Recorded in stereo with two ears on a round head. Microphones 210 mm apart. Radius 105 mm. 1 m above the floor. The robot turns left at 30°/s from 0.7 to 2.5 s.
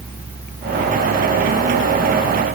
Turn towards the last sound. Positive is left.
No sound to turn to.